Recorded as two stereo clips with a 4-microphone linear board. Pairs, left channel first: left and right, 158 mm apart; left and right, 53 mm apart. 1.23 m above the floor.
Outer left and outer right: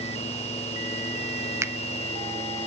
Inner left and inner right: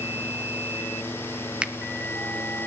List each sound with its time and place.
1.6 s a finger snap: 20° right (ahead or behind), 0.6 m